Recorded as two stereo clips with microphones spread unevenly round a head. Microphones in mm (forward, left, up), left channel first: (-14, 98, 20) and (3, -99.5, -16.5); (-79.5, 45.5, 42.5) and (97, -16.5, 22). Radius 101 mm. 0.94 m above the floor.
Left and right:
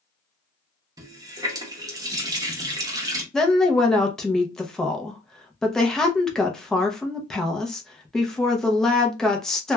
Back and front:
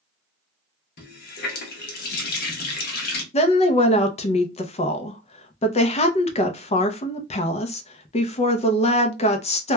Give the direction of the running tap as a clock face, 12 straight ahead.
5 o'clock.